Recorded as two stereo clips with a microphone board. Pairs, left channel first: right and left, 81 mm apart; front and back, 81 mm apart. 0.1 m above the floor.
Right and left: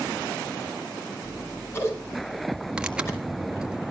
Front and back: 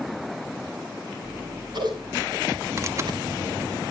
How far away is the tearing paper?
About 1.9 m.